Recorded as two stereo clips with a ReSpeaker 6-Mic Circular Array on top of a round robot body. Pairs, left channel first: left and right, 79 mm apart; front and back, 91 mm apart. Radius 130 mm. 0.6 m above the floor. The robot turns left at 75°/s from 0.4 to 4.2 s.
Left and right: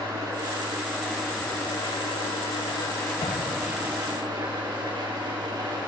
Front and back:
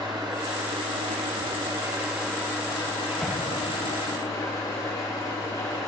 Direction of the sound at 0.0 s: 130° right.